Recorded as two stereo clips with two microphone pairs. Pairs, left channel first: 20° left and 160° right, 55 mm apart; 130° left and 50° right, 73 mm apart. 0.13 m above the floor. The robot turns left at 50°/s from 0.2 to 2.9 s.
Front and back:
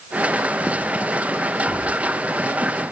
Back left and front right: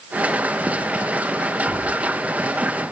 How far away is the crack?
About 5.5 m.